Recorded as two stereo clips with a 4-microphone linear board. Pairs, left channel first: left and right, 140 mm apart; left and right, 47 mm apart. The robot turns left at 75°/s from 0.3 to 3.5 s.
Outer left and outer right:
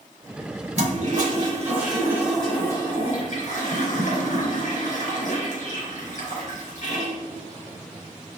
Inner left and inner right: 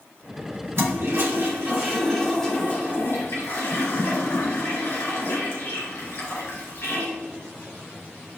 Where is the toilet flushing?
60° right, 3 m; by 7.1 s 95° left, 3 m.